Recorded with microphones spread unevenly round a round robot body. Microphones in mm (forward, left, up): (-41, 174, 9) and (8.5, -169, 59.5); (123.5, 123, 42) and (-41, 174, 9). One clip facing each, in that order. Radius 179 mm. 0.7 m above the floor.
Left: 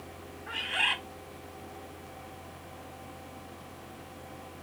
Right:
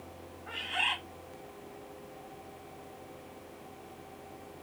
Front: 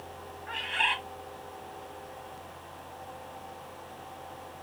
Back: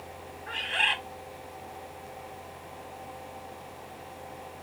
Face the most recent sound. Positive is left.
turn(degrees=170)